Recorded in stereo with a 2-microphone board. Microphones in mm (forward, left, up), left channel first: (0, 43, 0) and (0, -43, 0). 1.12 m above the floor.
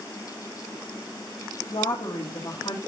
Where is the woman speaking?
65° left (ahead or behind), 2 m.